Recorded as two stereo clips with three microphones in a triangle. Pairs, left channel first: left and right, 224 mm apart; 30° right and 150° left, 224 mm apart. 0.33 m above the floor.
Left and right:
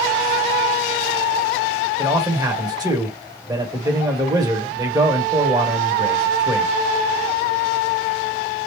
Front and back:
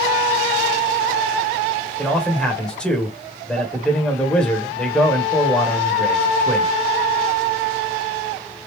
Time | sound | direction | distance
2.0 | a man speaking | 110° right | 1.2 m